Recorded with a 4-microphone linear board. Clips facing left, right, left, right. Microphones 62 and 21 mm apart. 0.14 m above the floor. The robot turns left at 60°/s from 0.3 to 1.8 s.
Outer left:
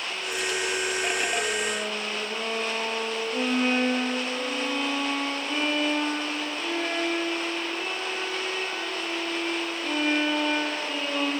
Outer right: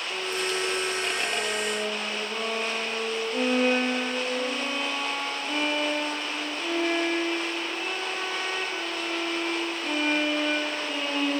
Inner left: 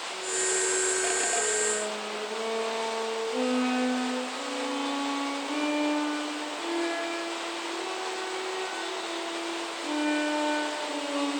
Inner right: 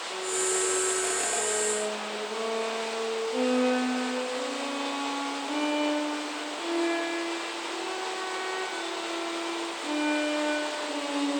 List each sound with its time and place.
0.1 s a violin: 85° right, 5 m; by 11.3 s 175° right, 5 m